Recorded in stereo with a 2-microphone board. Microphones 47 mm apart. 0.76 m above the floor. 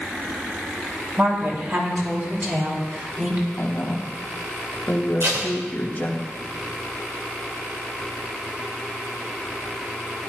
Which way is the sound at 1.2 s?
55° right (ahead or behind).